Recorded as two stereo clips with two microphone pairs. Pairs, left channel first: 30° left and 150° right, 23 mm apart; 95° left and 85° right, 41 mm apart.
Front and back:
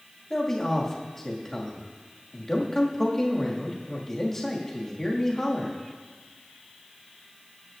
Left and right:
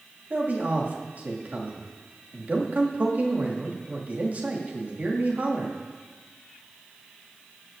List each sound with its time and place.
0.3 s a man speaking: 40° right, 2 m